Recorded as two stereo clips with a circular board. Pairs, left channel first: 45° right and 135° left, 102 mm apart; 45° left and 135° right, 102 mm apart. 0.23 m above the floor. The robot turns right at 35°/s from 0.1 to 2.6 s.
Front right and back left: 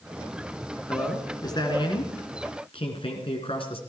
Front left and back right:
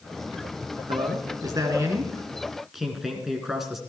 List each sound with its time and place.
0.9 s a man speaking: 110° right, 3 m; by 3.8 s 50° right, 3 m